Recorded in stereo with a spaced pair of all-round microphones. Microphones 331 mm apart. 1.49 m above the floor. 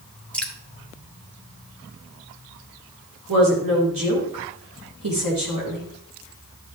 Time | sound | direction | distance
0.3 | dripping | 5° left (ahead or behind) | 1.6 m
3.3 | a woman speaking | 80° right | 4.5 m